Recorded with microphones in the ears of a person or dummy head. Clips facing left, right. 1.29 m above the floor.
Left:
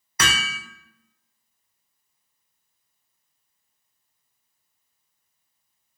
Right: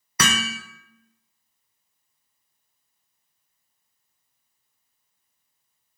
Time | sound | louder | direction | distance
0.2 | hammering | right 3 dB | 80° right | 0.5 m